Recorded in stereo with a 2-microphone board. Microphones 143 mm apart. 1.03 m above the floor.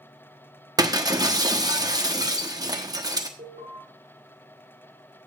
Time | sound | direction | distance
0.8 | breaking glass | 25° right (ahead or behind) | 1.1 m
3.4 | an alarm | 65° right (ahead or behind) | 4.5 m